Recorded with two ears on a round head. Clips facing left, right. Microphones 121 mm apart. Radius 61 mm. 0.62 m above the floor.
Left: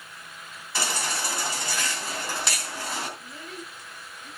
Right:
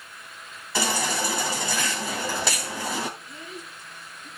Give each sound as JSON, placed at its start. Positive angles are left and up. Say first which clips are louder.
{"t": 0.8, "sound": "a baby crying", "louder": "right 5 dB", "side_deg": -65, "distance_m": 2.5}
{"t": 3.2, "sound": "a child speaking", "louder": "even", "side_deg": -5, "distance_m": 5.5}